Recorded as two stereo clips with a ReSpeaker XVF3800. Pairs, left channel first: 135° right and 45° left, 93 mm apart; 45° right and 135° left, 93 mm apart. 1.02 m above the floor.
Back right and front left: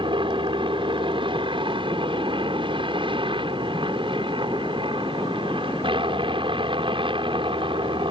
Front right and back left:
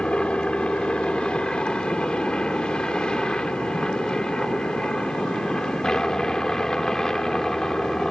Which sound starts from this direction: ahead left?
A helicopter, at 0.0 s.